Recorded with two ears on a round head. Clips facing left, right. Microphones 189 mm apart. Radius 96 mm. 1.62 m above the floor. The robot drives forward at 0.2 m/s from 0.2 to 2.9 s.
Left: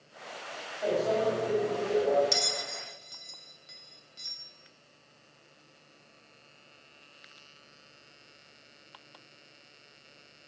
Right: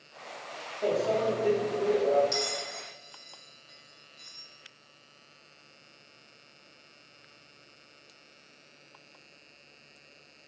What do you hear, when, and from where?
0.8 s a microwave: 35° right (ahead or behind), 2.5 m; by 2.2 s 40° right (ahead or behind), 2.5 m
2.3 s a bell: 40° left (ahead or behind), 0.5 m; by 4.4 s 35° left (ahead or behind), 0.6 m